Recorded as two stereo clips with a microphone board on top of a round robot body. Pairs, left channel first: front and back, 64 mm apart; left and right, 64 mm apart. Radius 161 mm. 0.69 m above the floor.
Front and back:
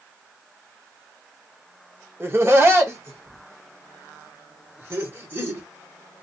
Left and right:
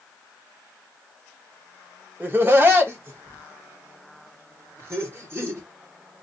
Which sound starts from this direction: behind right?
Laughter, at 2.2 s.